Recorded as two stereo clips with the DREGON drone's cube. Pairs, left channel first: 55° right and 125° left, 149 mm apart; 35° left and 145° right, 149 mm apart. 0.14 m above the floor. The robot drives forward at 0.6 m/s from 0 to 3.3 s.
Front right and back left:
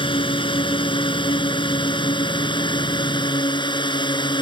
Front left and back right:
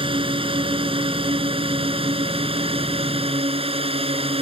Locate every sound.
0.0 s a drone: 100° right; by 4.4 s 105° right